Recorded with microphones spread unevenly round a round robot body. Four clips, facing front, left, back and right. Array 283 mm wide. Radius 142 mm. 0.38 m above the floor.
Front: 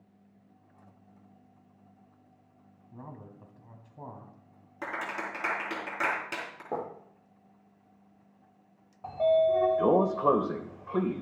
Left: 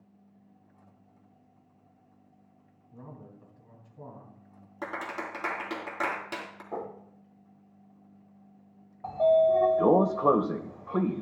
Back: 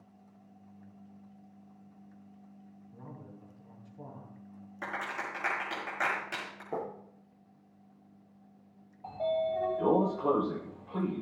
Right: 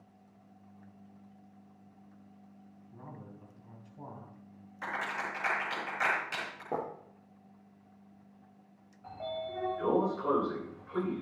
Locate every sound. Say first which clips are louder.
2.9 s a man speaking: left 2 dB, front 3 dB; straight ahead, 3 m
4.8 s a clap: left 1 dB, front 2 dB; 50° left, 3.5 m
6.7 s writing: right 1 dB, front 2 dB; 35° right, 6 m
9.0 s a sliding door: left 17 dB, front 7 dB; 60° left, 0.8 m